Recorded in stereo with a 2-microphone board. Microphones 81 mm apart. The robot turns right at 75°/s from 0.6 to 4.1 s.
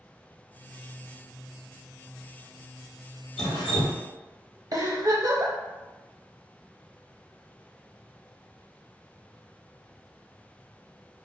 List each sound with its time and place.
3.4 s dripping: 85° left, 0.9 m; by 4.0 s 135° left, 0.9 m
4.7 s a giggle: 50° right (ahead or behind), 0.6 m